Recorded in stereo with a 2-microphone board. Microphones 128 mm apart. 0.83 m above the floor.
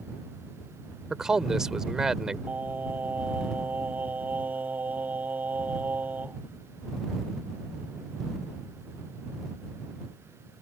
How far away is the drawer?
No drawer in this recording.